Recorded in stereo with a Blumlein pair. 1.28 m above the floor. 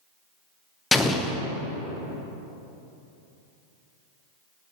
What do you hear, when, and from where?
0.9 s an explosion: 10° left, 0.6 m